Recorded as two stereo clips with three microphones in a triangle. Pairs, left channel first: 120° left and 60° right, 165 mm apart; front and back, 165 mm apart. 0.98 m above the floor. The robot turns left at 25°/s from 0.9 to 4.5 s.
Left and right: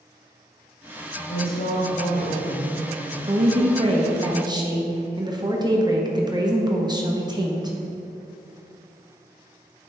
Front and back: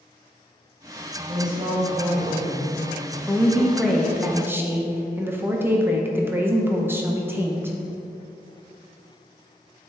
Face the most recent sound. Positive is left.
turn(degrees=-110)